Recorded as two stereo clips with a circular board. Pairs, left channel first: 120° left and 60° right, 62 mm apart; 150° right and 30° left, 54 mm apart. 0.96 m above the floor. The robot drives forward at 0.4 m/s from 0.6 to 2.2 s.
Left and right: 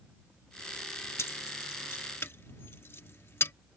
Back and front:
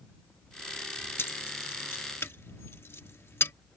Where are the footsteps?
I don't hear footsteps.